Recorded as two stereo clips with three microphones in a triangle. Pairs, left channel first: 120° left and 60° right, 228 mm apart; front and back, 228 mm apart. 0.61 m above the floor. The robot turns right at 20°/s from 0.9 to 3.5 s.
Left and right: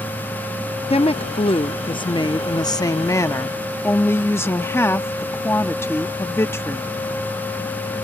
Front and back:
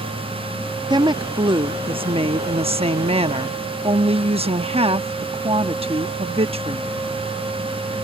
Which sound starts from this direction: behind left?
A woman speaking, at 0.9 s.